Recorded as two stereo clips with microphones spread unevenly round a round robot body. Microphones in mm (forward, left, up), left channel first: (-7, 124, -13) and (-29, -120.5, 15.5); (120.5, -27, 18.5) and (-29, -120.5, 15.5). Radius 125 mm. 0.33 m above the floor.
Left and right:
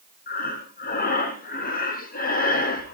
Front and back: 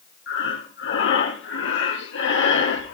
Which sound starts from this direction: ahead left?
Breathing, at 0.3 s.